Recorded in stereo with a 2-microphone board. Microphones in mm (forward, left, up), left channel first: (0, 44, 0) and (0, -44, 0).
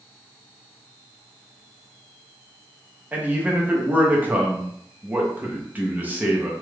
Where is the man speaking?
20° right (ahead or behind), 0.7 m.